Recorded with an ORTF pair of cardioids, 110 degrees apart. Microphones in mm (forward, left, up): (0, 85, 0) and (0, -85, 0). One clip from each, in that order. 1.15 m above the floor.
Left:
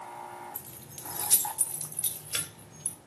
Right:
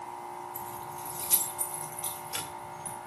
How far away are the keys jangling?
About 2 m.